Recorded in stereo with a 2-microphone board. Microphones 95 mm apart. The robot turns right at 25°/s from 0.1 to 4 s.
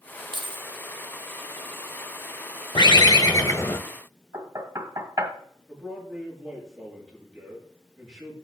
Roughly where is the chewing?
I don't hear chewing.